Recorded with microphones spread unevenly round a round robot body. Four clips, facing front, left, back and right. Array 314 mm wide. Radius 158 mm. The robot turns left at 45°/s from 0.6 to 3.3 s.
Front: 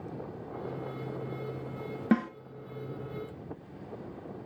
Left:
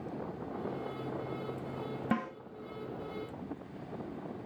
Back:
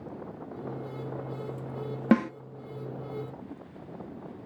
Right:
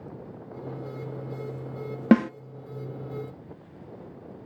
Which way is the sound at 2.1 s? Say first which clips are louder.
Right 15 dB, back 4 dB; 105° right.